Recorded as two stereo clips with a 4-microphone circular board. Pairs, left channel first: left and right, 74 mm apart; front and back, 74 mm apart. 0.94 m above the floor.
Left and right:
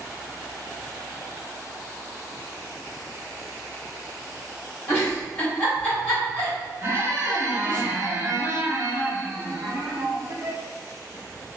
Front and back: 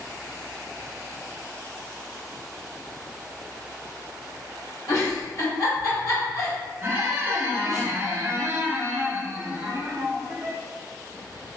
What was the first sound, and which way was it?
A giggle, 20° left.